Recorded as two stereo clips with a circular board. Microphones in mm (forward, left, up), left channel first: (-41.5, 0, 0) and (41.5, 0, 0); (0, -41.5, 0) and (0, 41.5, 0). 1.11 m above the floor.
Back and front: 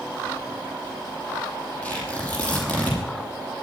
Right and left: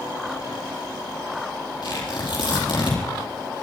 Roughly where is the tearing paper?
Right.